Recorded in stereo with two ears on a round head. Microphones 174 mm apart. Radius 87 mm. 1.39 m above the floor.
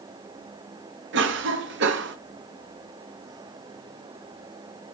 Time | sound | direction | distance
1.1 | a cough | 65° right (ahead or behind) | 0.7 m